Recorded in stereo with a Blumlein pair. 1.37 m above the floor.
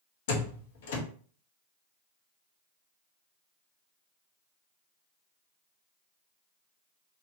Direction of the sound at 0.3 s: 55° left.